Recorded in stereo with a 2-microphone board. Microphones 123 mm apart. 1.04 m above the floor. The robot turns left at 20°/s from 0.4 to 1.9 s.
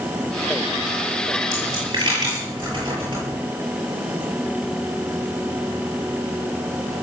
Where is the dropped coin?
30° right (ahead or behind), 9.5 m; by 3.4 s 35° right (ahead or behind), 9.5 m.